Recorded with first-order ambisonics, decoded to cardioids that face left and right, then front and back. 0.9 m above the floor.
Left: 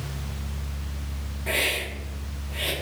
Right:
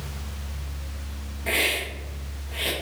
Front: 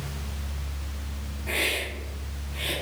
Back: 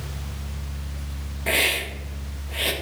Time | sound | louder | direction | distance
1.5 | a hiss | right 1 dB, back 5 dB | 165° right | 0.6 m